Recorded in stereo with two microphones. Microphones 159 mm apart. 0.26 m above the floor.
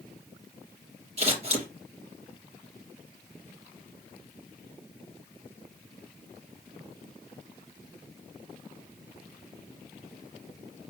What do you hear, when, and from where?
1.2 s scissors: 40° right (ahead or behind), 3 m